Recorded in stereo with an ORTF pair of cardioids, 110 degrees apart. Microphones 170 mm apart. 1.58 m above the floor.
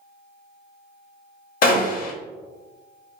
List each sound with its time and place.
1.6 s a gunshot: 55° left, 0.6 m